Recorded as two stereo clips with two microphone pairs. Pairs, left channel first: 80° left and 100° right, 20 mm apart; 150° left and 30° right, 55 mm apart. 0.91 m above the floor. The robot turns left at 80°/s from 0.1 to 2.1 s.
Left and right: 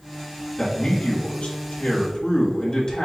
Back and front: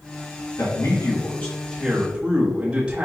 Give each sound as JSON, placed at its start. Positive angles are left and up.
{"t": 0.6, "sound": "a man speaking", "azimuth_deg": 160, "distance_m": 1.2}